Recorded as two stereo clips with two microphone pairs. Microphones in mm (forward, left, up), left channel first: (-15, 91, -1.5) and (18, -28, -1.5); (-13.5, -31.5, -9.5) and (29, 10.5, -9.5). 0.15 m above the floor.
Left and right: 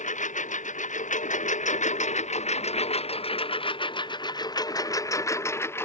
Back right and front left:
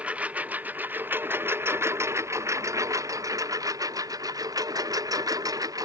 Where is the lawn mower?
115° left; by 5.9 s 35° left.